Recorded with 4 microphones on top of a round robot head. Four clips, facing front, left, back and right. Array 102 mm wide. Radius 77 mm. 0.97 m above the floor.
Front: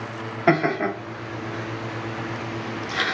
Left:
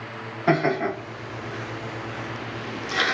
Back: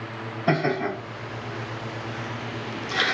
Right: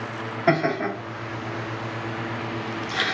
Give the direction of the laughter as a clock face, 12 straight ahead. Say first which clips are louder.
Even, front 3 dB; 12 o'clock.